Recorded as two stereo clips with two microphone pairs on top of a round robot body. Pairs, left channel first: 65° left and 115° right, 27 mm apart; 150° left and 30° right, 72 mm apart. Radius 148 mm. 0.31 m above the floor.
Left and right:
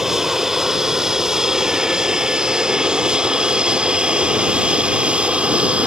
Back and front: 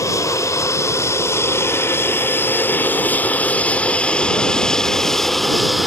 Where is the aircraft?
170° left; by 5.9 s 120° right.